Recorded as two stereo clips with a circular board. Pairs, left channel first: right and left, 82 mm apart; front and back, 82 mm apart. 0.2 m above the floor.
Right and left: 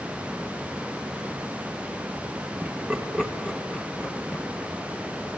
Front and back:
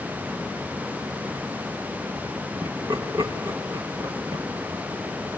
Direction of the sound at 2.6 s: 165° left.